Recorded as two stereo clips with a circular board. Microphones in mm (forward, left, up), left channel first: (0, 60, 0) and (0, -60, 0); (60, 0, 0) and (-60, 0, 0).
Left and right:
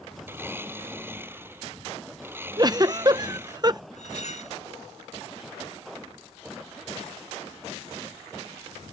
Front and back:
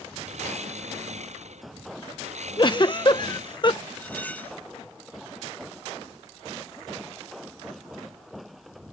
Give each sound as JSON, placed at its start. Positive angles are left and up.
{"t": 0.3, "sound": "a blender", "azimuth_deg": -160}
{"t": 2.6, "sound": "a giggle", "azimuth_deg": -40}
{"t": 4.0, "sound": "cutlery clinking", "azimuth_deg": 75}